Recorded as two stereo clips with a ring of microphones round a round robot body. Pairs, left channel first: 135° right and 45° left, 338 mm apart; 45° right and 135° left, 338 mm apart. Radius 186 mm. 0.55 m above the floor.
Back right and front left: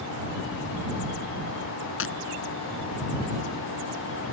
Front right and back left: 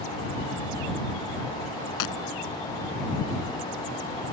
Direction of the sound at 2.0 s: 80° right.